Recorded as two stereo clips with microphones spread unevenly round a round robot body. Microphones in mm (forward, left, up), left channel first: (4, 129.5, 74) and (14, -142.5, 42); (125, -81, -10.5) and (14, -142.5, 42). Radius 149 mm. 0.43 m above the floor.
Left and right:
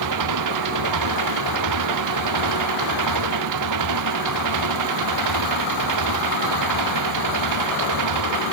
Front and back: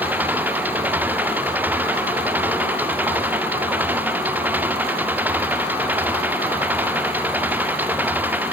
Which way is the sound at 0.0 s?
75° right.